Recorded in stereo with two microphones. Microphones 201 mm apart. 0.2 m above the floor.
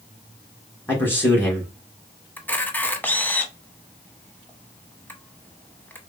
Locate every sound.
0.9 s a man speaking: 10° left (ahead or behind), 3 m
2.4 s a camera shutter: 10° left (ahead or behind), 0.8 m